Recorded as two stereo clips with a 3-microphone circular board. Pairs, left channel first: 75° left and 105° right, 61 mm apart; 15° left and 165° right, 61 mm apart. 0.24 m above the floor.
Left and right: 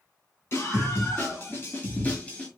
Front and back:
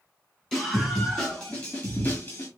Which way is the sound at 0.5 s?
100° left.